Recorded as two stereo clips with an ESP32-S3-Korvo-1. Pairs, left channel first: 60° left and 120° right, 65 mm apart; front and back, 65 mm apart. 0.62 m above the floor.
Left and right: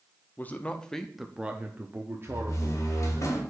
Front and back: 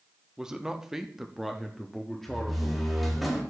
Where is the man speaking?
105° left, 0.7 m; by 3.3 s 80° right, 1.2 m.